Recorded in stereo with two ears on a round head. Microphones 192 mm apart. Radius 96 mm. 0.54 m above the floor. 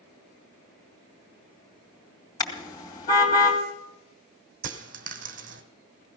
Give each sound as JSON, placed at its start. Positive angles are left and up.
{"t": 2.4, "sound": "a car horn", "side_deg": 15, "distance_m": 2.5}
{"t": 4.6, "sound": "a dropped coin", "side_deg": -40, "distance_m": 1.5}